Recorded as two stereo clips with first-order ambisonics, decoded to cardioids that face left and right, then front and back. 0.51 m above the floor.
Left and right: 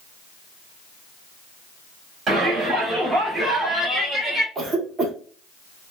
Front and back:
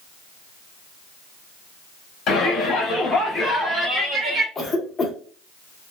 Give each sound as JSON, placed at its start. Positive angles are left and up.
{"t": 2.3, "sound": "a shout", "azimuth_deg": -35, "distance_m": 1.1}
{"t": 4.5, "sound": "a cough", "azimuth_deg": -60, "distance_m": 0.7}